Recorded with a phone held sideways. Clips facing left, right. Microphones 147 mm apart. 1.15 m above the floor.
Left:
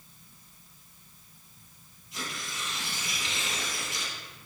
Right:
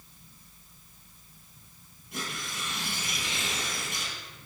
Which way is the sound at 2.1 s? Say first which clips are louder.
Right 1 dB; 55° right (ahead or behind).